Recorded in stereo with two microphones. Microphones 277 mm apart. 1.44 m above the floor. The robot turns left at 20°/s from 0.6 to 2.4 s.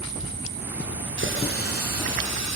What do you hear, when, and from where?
1.2 s a running tap: 40° right (ahead or behind), 2.5 m; by 2.6 s 65° right (ahead or behind), 2.5 m